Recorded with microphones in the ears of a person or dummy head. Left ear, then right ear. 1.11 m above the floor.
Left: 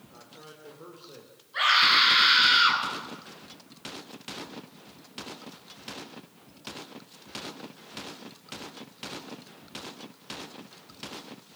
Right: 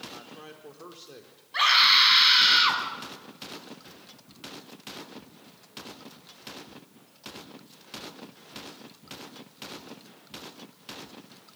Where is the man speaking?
60° right (ahead or behind), 3 m; by 1.4 s 85° right, 3 m.